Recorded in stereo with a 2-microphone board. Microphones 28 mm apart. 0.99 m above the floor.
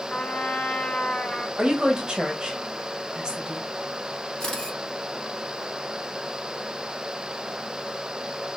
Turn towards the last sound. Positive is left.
turn(degrees=25)  # may be behind; listen again after turning